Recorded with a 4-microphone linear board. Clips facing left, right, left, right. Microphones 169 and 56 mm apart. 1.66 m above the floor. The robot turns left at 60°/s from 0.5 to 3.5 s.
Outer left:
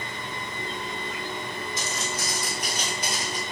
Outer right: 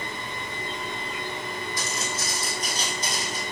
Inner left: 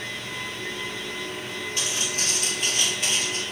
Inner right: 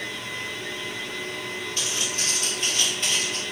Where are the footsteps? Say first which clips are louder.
Even, inner left 2 dB; 25° left (ahead or behind), 1.7 m; by 3.4 s 15° left (ahead or behind), 1.7 m.